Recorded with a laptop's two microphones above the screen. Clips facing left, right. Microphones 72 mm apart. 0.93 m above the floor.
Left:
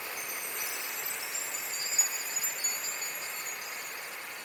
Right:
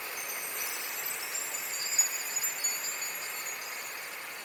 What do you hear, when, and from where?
0.2 s a chime: 5° right (ahead or behind), 0.6 m